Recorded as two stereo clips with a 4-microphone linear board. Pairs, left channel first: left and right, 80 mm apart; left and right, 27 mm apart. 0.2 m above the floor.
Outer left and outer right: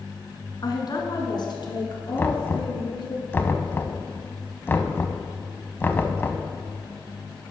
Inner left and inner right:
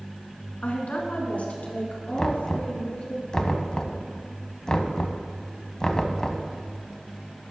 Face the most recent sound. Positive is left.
turn(degrees=25)  # may be behind; listen again after turning